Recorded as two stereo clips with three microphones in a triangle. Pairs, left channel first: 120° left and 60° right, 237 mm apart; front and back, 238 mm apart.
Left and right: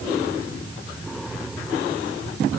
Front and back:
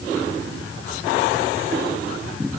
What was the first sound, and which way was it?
Only background noise.